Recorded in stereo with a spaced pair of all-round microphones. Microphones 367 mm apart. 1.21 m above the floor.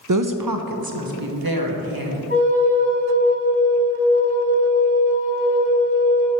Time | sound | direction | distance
0.1 | a woman speaking | 55° right (ahead or behind) | 0.5 m
2.3 | a flute | 35° left (ahead or behind) | 2.5 m